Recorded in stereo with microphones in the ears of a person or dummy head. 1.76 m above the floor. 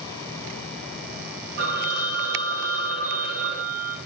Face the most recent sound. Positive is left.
turn(degrees=-40)  # may be behind; listen again after turning